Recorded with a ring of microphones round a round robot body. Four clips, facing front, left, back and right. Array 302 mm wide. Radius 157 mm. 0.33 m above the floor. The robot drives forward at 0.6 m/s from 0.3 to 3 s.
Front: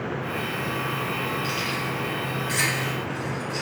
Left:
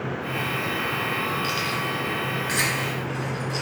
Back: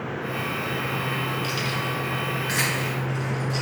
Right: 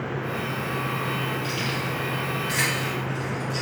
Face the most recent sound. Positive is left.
turn(degrees=145)